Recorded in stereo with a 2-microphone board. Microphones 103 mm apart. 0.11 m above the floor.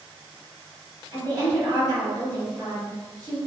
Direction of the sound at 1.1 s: 35° right (ahead or behind).